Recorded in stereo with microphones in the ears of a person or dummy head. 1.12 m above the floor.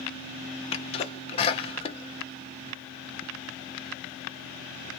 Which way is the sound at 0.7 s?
25° left (ahead or behind).